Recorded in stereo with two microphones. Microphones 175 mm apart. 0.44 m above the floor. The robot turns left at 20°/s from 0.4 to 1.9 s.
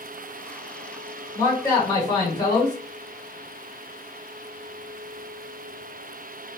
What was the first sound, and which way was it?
A man speaking, 15° left (ahead or behind).